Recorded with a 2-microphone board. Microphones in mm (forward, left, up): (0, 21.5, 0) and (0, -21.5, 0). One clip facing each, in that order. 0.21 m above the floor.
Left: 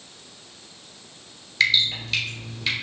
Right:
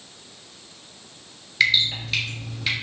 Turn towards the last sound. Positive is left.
turn(degrees=-10)  # may be behind; listen again after turning